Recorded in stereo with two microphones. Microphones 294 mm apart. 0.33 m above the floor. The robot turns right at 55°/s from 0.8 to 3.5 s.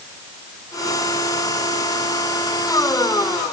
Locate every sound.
Only background noise.